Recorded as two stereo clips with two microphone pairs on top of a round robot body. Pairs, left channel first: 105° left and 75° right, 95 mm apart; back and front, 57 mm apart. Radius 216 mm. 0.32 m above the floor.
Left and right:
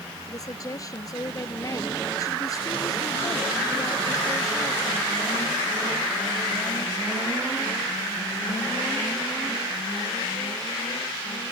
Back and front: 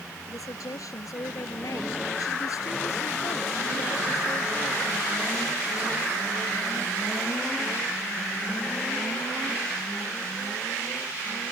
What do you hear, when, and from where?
0.3 s a woman speaking: 160° left